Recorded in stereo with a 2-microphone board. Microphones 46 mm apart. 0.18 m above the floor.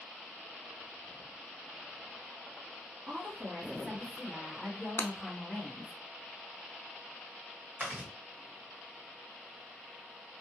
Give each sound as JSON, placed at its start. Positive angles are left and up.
{"t": 3.1, "sound": "a woman speaking", "side_deg": -35, "distance_m": 2.0}
{"t": 5.0, "sound": "breaking glass", "side_deg": 55, "distance_m": 0.5}
{"t": 7.8, "sound": "chewing", "side_deg": -35, "distance_m": 2.0}